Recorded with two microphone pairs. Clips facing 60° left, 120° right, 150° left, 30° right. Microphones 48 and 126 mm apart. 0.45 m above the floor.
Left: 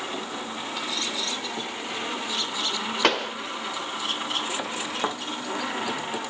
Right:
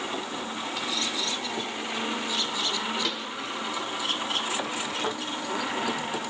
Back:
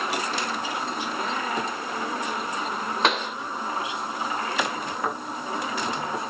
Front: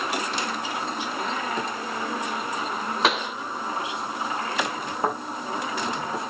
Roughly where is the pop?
Ahead left.